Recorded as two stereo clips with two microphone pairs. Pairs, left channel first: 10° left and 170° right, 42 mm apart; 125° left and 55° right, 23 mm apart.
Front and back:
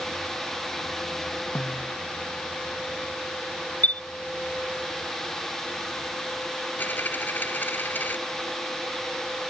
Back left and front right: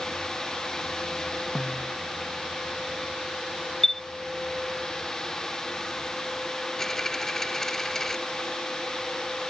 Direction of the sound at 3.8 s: 50° left.